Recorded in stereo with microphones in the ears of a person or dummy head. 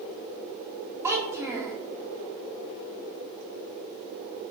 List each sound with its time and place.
1.0 s a child speaking: 15° right (ahead or behind), 0.7 m